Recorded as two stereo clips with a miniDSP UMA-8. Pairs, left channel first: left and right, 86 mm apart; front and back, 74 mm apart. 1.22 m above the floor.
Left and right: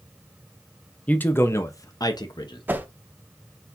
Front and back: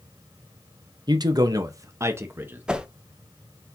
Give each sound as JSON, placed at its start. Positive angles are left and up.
{"t": 1.1, "sound": "a man speaking", "azimuth_deg": 165, "distance_m": 0.8}
{"t": 2.7, "sound": "a whoosh", "azimuth_deg": -120, "distance_m": 0.6}